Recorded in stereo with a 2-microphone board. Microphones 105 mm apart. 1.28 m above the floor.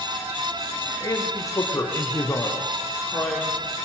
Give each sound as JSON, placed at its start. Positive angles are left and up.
{"t": 1.0, "sound": "a man speaking", "side_deg": 35, "distance_m": 4.0}